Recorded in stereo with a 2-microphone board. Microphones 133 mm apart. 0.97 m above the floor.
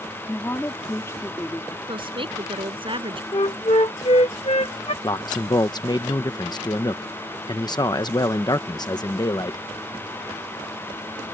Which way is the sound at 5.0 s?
35° left (ahead or behind).